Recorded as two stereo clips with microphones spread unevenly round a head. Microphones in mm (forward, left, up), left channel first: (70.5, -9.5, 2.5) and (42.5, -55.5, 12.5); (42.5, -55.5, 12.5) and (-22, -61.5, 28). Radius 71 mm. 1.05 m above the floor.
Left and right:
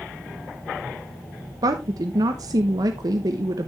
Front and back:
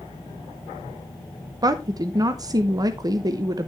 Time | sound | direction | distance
1.6 | a woman speaking | 140° right | 0.8 m